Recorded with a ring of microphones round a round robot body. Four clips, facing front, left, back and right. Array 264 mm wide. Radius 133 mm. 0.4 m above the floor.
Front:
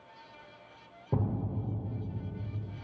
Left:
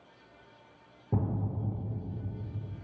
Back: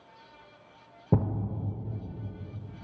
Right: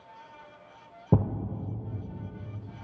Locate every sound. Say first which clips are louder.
1.1 s a thud: right 6 dB, back 5 dB; 120° right, 0.5 m